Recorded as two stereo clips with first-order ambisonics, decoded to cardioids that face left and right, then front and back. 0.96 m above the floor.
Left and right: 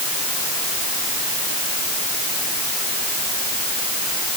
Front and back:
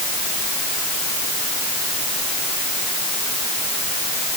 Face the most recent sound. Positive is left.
No sound to turn to.